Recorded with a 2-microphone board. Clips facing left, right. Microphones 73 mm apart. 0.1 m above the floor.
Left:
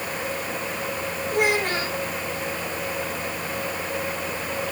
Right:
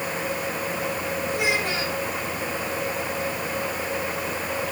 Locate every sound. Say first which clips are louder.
1.3 s a child speaking: left 5 dB; 50° left (ahead or behind), 3.5 m